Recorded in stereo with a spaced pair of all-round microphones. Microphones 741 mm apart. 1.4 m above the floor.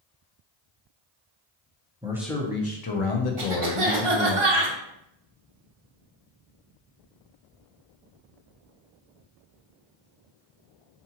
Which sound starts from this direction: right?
A cough, at 3.4 s.